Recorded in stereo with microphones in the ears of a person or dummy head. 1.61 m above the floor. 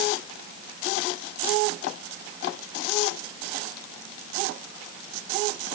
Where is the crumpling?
No crumpling in this recording.